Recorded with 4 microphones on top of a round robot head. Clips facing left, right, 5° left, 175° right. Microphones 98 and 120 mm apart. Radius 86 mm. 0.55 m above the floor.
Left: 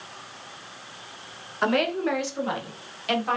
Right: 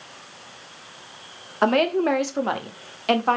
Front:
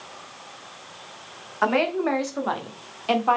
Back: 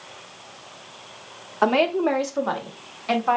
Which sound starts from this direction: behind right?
A woman speaking, at 1.6 s.